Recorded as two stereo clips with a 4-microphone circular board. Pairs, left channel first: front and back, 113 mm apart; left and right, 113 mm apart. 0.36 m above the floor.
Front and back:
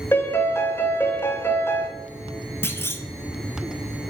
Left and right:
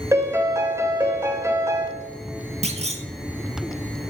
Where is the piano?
50° right, 0.7 m.